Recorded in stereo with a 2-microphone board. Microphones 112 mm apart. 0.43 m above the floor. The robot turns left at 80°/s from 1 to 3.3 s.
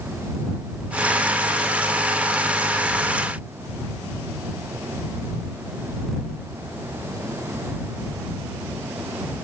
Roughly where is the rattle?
No rattle in this recording.